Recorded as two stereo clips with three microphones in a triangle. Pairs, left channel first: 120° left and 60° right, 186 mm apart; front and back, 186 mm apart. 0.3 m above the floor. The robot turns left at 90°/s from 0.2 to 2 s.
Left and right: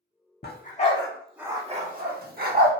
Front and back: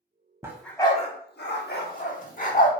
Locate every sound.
0.4 s a dog barking: 105° left, 0.6 m; by 2.7 s 35° right, 0.6 m